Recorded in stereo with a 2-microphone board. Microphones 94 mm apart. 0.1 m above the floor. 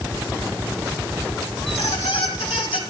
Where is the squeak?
75° left (ahead or behind), 1.3 m.